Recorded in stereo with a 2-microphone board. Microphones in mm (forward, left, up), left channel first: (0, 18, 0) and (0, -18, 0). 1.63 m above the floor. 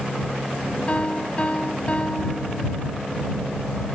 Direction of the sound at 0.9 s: 35° left (ahead or behind).